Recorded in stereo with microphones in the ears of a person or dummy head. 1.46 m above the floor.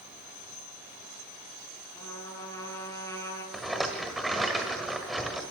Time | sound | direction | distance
1.9 | a trumpet | 15° left (ahead or behind) | 6 m
3.5 | a rattle | 5° left (ahead or behind) | 1.5 m